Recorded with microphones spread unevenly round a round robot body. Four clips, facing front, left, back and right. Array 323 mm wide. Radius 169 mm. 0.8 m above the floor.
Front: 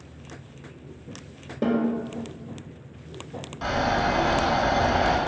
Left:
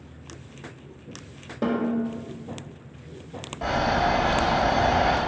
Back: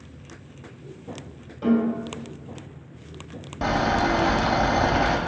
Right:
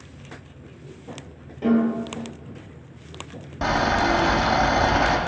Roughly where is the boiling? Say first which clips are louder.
Right 2 dB, back 2 dB; behind right.